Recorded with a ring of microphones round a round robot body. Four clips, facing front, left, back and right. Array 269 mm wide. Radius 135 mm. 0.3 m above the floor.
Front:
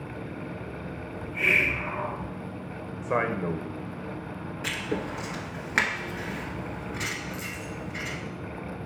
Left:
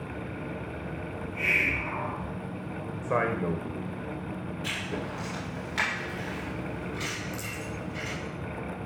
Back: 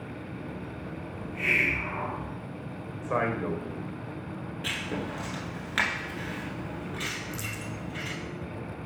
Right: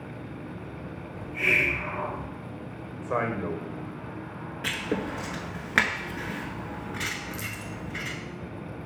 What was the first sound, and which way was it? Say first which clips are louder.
A hiss: right 4 dB, front 3 dB; 40° right.